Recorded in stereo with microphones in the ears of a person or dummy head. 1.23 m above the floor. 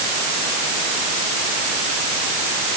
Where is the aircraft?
I don't hear an aircraft.